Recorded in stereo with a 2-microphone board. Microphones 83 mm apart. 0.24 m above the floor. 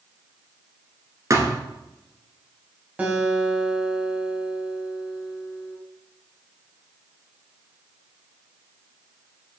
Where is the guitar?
15° right (ahead or behind), 1.7 m.